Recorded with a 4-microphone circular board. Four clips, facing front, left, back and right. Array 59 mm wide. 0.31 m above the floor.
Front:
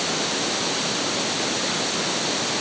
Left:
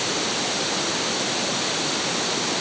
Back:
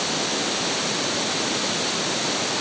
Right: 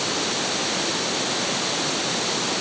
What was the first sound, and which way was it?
Only background noise.